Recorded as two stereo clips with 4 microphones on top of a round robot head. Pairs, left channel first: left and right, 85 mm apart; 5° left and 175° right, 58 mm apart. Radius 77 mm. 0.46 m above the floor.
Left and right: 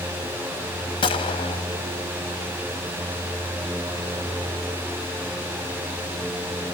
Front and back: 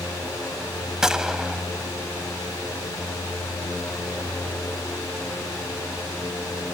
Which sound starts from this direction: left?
A gunshot, at 1.0 s.